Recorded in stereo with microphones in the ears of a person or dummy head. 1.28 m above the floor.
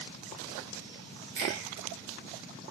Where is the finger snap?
55° right (ahead or behind), 1.4 m.